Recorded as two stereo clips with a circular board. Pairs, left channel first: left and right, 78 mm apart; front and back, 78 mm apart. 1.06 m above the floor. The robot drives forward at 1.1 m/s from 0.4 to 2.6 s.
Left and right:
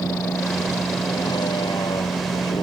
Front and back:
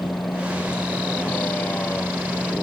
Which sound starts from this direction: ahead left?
A vehicle, at 0.0 s.